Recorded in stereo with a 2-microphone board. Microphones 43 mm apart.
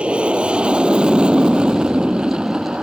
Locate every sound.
0.0 s an aircraft: 25° right (ahead or behind); by 2.8 s 20° right (ahead or behind)